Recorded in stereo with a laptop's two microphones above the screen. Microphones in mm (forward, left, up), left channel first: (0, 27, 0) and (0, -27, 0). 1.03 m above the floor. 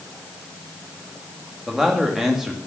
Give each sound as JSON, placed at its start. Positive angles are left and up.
{"t": 1.7, "sound": "a man speaking", "side_deg": -5, "distance_m": 1.9}